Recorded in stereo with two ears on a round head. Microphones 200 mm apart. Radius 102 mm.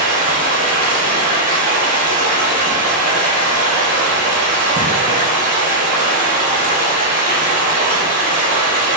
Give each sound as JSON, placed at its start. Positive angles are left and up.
{"t": 0.0, "sound": "running water", "side_deg": -35, "distance_m": 1.4}